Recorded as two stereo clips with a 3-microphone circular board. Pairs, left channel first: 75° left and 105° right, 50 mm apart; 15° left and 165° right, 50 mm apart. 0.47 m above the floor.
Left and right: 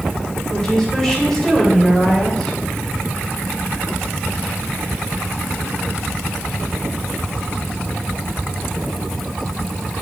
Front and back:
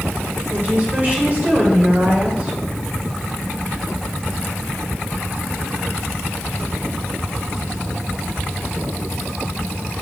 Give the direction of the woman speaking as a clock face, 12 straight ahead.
7 o'clock.